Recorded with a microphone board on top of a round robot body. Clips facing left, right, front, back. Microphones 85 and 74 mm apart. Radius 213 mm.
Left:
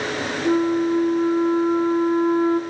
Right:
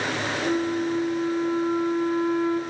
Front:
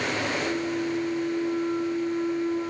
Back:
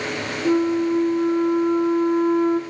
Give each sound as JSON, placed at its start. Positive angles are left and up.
{"t": 0.5, "sound": "a flute", "azimuth_deg": 145, "distance_m": 1.4}